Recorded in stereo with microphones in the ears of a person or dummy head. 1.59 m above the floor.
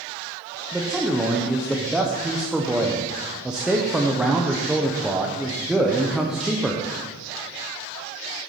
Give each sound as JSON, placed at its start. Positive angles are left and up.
{"t": 0.7, "sound": "a man speaking", "side_deg": -5, "distance_m": 0.8}